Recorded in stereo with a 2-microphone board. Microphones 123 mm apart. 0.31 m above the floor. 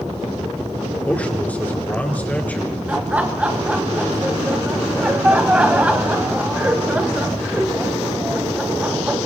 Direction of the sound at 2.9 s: 10° right (ahead or behind).